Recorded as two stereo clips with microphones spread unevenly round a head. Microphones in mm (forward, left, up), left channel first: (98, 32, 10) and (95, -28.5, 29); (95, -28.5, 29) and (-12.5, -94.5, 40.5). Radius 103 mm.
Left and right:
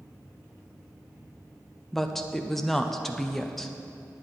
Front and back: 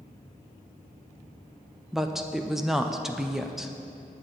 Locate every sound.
1.9 s a woman speaking: 115° left, 0.5 m